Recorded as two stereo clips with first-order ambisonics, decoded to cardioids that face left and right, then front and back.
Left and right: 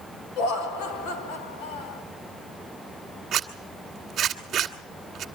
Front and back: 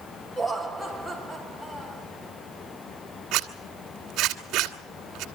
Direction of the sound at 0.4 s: 90° left.